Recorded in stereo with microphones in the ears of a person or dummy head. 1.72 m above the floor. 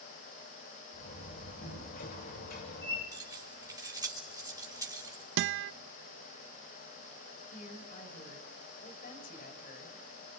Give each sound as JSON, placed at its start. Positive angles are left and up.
{"t": 0.9, "sound": "a door slam", "side_deg": 55, "distance_m": 6.5}
{"t": 3.1, "sound": "keys jangling", "side_deg": -15, "distance_m": 3.5}
{"t": 5.4, "sound": "a guitar", "side_deg": -70, "distance_m": 0.7}
{"t": 7.5, "sound": "a woman speaking", "side_deg": 50, "distance_m": 7.0}